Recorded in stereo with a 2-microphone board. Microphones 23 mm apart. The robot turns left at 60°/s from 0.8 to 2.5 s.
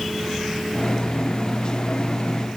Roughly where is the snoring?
No snoring in this recording.